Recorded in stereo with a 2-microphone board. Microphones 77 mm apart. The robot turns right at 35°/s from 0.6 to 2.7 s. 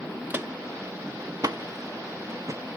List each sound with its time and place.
0.3 s footsteps: 25° right (ahead or behind), 0.7 m; by 2.6 s 40° right (ahead or behind), 1.2 m